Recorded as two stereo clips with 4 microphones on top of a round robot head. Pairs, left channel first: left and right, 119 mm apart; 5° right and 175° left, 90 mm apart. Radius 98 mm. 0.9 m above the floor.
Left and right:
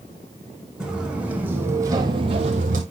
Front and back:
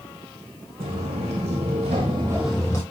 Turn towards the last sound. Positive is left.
turn(degrees=-70)